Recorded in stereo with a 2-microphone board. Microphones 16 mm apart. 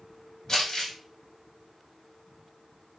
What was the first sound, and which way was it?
Crumpling, 45° left (ahead or behind).